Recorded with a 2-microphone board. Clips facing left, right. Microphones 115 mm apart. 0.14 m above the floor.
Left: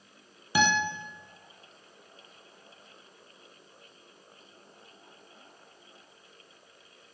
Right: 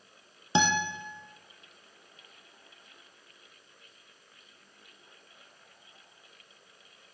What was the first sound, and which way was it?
A guitar, 25° right (ahead or behind).